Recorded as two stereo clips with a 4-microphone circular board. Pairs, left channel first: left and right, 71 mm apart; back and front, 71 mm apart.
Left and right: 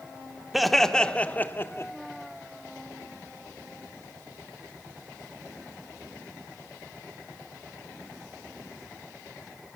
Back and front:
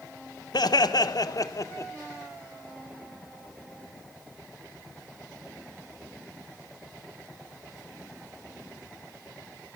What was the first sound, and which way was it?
Laughter, 175° right.